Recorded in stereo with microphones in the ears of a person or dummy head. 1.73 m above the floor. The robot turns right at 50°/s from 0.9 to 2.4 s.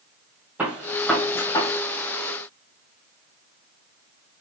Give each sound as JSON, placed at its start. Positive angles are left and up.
{"t": 0.6, "sound": "a gunshot", "side_deg": -5, "distance_m": 1.9}